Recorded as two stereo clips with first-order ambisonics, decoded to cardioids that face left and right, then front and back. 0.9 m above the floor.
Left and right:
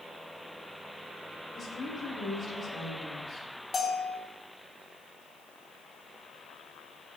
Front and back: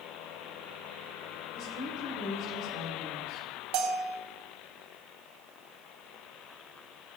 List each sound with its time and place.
1.6 s a woman speaking: 25° left, 2 m
3.7 s a bell: 165° left, 1.1 m